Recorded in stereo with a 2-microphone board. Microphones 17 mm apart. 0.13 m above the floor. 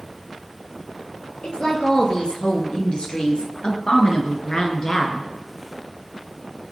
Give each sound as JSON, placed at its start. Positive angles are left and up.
{"t": 1.4, "sound": "a woman speaking", "side_deg": 50, "distance_m": 3.0}